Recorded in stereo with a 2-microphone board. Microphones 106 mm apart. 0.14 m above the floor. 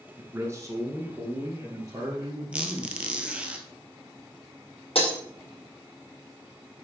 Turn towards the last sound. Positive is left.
turn(degrees=70)  # may be behind; listen again after turning